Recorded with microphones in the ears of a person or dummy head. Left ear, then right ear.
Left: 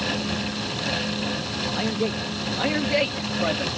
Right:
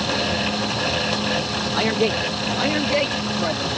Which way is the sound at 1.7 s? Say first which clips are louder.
Right 8 dB; 35° right (ahead or behind).